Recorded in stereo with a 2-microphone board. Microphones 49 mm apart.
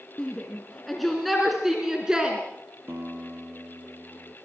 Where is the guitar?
55° right (ahead or behind), 2.5 m.